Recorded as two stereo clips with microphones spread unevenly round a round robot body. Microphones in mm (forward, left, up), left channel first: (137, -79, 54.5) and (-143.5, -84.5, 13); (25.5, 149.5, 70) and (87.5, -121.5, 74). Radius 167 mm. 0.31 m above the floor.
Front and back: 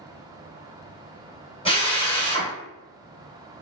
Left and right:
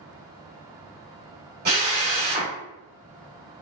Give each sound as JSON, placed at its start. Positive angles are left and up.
{"t": 1.6, "sound": "a drill", "azimuth_deg": -70, "distance_m": 1.7}